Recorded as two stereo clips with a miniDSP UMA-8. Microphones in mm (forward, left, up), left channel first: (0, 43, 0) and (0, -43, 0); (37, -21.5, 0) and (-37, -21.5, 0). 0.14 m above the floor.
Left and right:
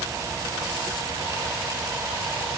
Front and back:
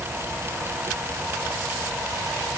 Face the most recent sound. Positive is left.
No sound to turn to.